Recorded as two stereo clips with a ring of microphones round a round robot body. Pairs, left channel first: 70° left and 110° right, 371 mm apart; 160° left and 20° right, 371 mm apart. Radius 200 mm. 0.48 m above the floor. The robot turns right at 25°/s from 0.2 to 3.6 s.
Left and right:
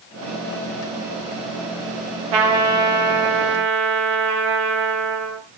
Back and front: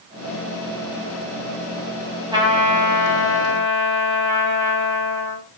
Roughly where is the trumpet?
Right.